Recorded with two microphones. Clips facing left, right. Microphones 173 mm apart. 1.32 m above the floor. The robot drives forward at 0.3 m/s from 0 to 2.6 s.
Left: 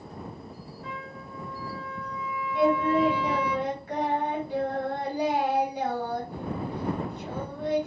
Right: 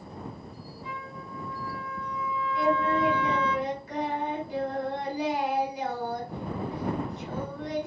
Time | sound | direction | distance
0.8 | a trumpet | 70° left (ahead or behind) | 2.5 m
2.5 | singing | 60° left (ahead or behind) | 3 m